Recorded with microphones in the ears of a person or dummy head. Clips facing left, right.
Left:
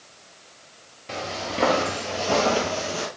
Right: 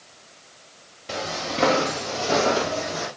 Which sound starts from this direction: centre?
Footsteps, at 1.1 s.